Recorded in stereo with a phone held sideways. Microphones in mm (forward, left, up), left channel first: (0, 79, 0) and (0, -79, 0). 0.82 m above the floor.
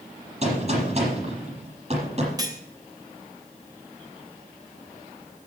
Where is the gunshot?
45° right (ahead or behind), 6.5 m.